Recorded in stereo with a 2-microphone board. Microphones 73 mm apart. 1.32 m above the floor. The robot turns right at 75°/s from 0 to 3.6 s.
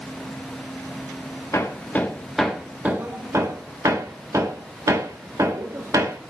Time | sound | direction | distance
1.5 | hammering | 45° left (ahead or behind) | 1.0 m